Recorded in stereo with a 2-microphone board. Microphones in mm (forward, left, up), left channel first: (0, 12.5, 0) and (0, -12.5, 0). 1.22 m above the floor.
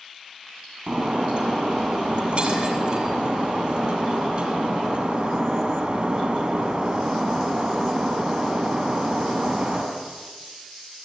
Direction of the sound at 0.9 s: 45° right (ahead or behind).